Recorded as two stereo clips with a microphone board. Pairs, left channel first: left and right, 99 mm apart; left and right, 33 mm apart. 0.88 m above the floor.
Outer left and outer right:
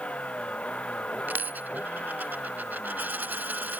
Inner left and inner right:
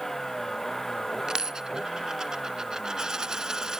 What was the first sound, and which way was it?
A vehicle, 15° left (ahead or behind).